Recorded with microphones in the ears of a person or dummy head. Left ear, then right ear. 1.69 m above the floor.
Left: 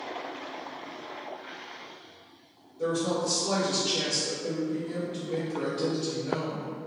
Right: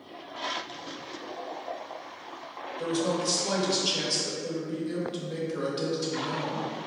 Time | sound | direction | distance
2.8 | a woman speaking | 50° right (ahead or behind) | 1.0 m